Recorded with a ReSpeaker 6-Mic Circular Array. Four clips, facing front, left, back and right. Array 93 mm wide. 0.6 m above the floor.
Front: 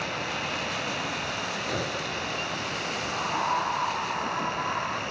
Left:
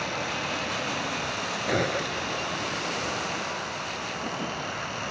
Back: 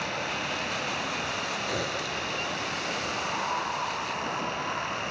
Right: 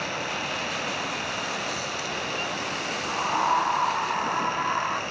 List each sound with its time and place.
1.7 s a zipper: 95° left
3.1 s a scream: 75° right